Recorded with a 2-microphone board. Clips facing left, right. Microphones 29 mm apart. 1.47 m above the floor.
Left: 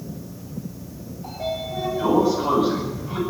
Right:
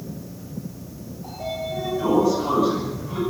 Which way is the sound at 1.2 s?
20° left (ahead or behind).